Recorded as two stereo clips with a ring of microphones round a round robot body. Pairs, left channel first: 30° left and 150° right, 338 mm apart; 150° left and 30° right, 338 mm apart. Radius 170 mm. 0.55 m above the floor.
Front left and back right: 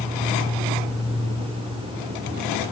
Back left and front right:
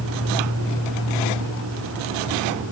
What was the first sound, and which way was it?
An insect, 125° left.